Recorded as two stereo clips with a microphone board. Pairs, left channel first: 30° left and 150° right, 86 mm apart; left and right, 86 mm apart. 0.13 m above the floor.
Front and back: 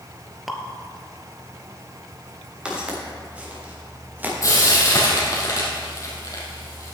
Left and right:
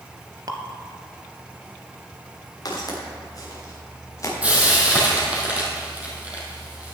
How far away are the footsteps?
About 4.5 m.